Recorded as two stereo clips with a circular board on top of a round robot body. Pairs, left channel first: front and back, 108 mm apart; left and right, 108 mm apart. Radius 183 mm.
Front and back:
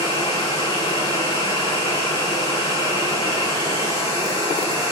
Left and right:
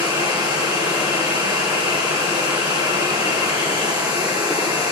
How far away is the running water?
About 5.5 m.